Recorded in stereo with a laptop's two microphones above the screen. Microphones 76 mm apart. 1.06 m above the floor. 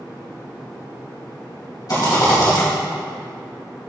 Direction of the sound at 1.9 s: 60° left (ahead or behind).